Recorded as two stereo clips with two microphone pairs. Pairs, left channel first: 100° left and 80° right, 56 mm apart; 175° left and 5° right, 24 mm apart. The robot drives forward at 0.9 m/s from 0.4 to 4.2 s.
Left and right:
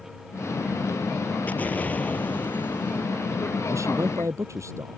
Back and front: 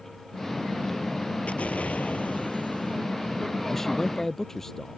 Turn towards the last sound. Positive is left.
turn(degrees=-110)